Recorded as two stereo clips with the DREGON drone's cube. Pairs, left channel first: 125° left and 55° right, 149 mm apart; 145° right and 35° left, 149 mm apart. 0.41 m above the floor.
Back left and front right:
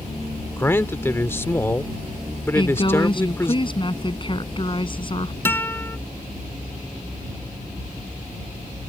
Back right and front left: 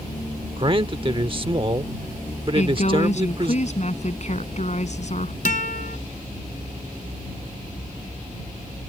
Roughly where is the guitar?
Behind.